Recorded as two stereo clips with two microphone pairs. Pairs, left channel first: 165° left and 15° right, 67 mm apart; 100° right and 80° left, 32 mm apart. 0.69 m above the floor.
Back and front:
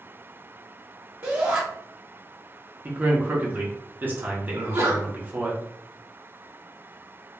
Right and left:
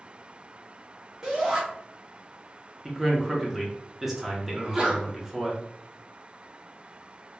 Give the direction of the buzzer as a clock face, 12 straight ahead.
No buzzer in this recording.